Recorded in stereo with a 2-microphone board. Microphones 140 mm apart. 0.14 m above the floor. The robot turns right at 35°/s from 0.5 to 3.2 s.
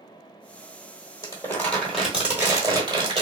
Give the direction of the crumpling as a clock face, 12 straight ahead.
7 o'clock.